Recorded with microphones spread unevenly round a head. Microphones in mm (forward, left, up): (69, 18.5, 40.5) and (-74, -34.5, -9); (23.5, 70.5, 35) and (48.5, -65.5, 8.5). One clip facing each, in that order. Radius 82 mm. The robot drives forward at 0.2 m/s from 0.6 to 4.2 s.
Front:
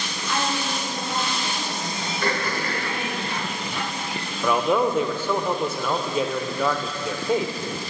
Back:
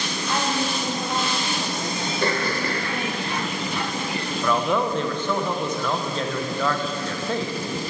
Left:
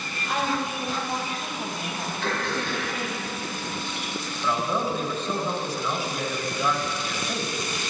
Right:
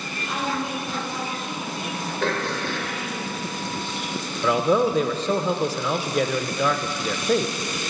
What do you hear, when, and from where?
0.3 s a woman speaking: 145° left, 1.7 m; by 3.2 s 150° left, 2 m
2.2 s throat clearing: 90° right, 1.3 m; by 2.9 s 100° right, 1.3 m
4.4 s a man speaking: 55° right, 0.6 m